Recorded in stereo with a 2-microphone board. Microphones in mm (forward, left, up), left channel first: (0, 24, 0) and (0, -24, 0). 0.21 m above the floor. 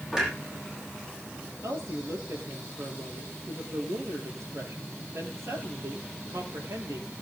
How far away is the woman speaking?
About 6 m.